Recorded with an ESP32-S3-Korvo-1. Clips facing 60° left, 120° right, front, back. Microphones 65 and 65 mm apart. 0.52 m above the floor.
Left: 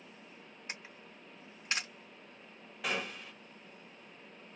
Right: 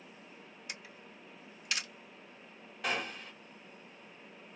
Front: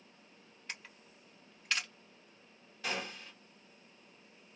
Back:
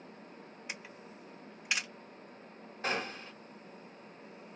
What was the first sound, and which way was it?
A camera shutter, 105° left.